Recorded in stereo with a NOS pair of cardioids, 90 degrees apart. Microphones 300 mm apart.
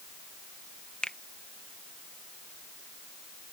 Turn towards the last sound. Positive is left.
turn(degrees=5)